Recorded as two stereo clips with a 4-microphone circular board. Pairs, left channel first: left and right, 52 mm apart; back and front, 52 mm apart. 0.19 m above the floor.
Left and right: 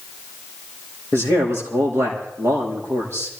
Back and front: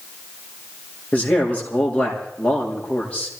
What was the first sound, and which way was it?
A man speaking, 115° right.